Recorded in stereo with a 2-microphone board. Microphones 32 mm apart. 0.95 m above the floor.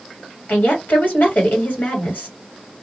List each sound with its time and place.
0.5 s a woman speaking: 55° left (ahead or behind), 1.7 m